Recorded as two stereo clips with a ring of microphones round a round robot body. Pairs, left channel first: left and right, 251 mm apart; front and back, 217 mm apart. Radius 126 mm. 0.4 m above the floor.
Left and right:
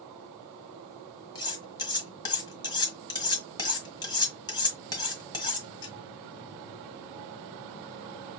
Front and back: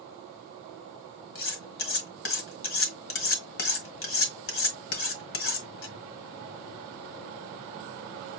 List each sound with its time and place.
1.4 s cutlery clinking: 15° left, 1.4 m